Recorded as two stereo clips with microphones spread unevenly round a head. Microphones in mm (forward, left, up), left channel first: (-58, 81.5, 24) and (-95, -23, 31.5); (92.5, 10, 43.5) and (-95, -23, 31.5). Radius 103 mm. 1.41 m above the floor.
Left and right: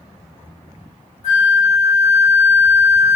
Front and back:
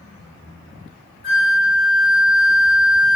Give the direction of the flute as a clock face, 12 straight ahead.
10 o'clock.